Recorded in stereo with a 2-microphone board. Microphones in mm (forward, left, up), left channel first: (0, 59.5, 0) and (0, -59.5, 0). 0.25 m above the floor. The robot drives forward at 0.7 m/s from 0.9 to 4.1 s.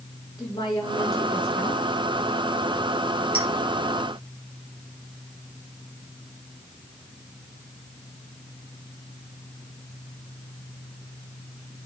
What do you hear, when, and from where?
0.4 s a woman speaking: 35° left (ahead or behind), 4 m; by 1.8 s 40° left (ahead or behind), 3.5 m
3.3 s a clink: 55° left (ahead or behind), 4.5 m